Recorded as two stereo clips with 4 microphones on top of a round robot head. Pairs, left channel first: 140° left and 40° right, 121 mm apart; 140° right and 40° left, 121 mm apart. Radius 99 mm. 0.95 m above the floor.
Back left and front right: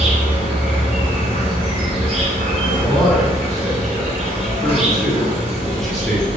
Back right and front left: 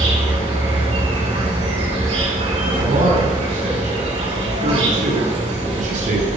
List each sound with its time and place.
0.0 s an insect: 5° left, 4 m
2.8 s a man speaking: 55° left, 3 m